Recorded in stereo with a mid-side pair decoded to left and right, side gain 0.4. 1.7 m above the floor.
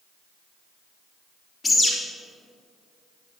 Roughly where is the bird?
Ahead left.